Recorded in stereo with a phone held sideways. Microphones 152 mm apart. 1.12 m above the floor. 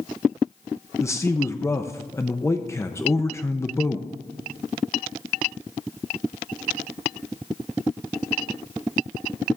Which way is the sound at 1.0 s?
20° left (ahead or behind).